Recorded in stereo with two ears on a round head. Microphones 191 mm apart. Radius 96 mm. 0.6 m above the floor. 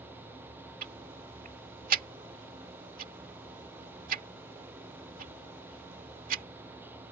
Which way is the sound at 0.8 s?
40° right (ahead or behind).